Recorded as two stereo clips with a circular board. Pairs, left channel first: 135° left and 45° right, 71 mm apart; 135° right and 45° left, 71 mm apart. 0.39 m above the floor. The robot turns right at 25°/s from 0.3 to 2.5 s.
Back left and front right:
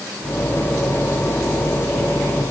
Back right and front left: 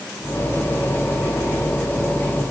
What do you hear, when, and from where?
Only background noise.